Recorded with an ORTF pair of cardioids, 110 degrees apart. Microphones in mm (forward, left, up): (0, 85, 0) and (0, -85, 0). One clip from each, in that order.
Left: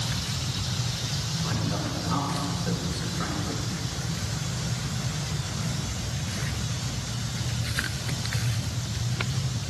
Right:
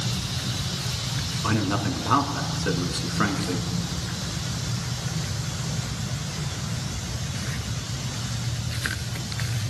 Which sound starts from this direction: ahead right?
A man speaking, at 1.4 s.